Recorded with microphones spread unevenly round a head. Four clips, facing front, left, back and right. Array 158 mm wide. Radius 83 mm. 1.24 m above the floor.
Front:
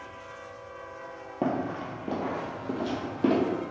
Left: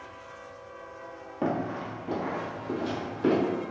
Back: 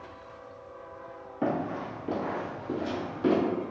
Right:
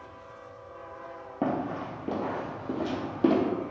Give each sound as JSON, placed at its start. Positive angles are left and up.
{"t": 1.4, "sound": "running footsteps", "azimuth_deg": -30, "distance_m": 1.5}